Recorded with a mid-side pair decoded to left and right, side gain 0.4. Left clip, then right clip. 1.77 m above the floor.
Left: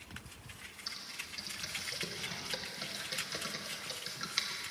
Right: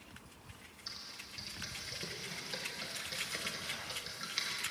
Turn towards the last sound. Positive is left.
turn(degrees=30)